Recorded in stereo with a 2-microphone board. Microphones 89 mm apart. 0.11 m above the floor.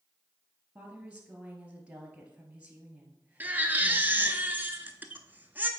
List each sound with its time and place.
0.8 s a woman speaking: 15° right (ahead or behind), 1.7 m
3.4 s a baby crying: 20° right (ahead or behind), 0.7 m